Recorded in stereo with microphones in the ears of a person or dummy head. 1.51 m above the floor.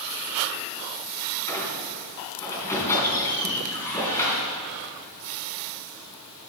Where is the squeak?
20° left (ahead or behind), 3 m.